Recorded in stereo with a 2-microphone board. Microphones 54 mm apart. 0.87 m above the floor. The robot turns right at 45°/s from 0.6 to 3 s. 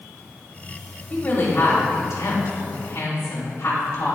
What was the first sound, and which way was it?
A woman speaking, 30° left.